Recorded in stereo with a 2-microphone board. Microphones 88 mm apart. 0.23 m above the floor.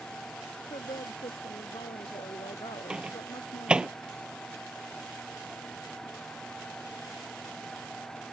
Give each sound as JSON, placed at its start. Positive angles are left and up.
{"t": 0.7, "sound": "a woman speaking", "side_deg": 80}
{"t": 2.9, "sound": "a microwave", "side_deg": -10}